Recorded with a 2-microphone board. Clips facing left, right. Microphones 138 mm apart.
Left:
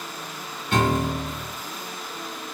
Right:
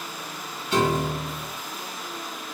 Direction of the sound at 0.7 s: 55° left (ahead or behind).